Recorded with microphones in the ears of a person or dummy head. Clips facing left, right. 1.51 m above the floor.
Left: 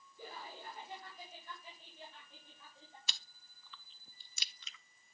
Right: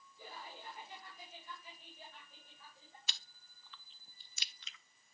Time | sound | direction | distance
0.2 | laughter | 50° left (ahead or behind) | 4.5 m
3.1 | chewing | 80° left | 0.6 m